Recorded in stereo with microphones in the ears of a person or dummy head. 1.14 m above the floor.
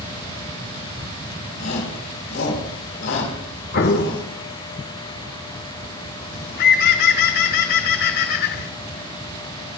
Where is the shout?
85° left, 4 m.